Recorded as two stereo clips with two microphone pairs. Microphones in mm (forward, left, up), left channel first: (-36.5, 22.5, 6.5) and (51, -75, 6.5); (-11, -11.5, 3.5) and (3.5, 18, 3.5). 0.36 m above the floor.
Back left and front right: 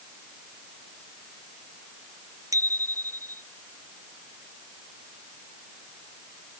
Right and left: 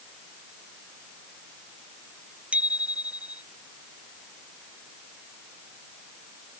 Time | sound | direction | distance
2.5 | a bicycle bell | 15° left | ?